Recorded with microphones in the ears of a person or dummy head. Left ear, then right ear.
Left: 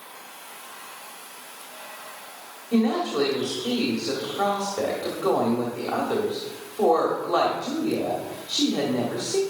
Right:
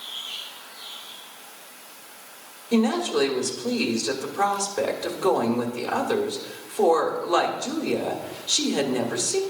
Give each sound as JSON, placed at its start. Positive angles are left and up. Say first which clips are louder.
{"t": 2.7, "sound": "a woman speaking", "louder": "right 1 dB", "side_deg": -70, "distance_m": 1.4}